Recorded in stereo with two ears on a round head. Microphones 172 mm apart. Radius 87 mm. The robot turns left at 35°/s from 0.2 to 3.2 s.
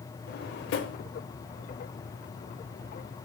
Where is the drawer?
55° left (ahead or behind), 0.8 m; by 1.0 s 65° left (ahead or behind), 0.8 m.